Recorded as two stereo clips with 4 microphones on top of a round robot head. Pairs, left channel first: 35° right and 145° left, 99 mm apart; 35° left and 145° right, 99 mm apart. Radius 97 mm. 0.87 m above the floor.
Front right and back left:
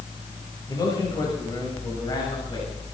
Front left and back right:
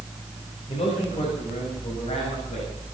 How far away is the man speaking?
About 6 m.